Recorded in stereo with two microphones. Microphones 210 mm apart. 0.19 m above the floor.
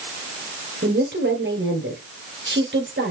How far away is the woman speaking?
About 3.5 m.